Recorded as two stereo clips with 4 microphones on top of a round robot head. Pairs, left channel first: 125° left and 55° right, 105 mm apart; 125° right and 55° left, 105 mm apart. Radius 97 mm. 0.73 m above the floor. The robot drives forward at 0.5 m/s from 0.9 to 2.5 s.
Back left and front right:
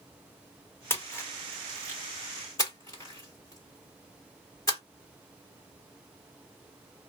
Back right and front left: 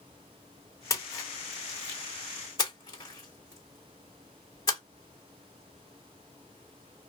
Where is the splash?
175° right, 1.0 m; by 4.8 s straight behind, 1.7 m.